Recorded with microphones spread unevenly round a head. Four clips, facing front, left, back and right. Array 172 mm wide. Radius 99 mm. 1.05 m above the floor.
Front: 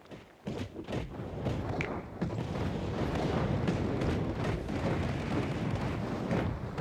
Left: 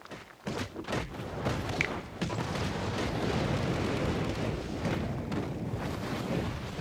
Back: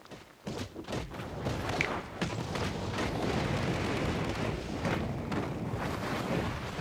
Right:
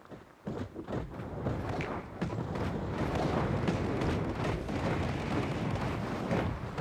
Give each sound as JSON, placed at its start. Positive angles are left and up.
{"t": 1.8, "sound": "a finger snap", "azimuth_deg": 95, "distance_m": 1.4}